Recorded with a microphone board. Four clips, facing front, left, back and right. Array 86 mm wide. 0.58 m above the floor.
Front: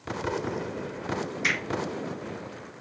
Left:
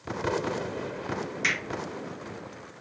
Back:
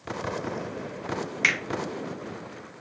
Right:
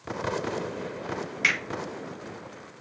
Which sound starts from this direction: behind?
A finger snap, at 1.4 s.